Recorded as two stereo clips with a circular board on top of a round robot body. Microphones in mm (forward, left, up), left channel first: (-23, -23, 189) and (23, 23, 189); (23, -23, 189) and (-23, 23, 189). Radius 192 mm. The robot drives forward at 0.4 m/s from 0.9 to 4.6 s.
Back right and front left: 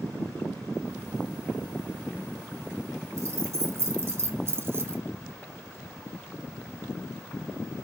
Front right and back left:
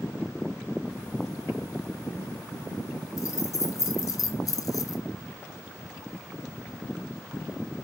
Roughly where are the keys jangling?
Ahead.